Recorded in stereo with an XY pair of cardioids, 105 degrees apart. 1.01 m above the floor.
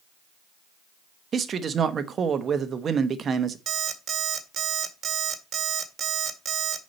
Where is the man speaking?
45° right, 1.0 m.